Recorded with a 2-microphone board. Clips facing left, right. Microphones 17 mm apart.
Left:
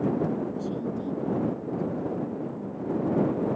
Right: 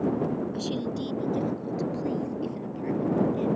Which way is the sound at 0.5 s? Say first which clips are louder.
Right 1 dB; 65° right (ahead or behind).